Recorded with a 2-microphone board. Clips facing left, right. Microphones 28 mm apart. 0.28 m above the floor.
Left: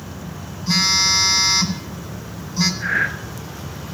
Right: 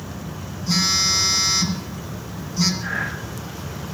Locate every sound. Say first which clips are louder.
0.7 s a phone buzzing: left 3 dB; 50° left (ahead or behind), 1.7 m
2.8 s breathing: left 6 dB; 50° left (ahead or behind), 1.0 m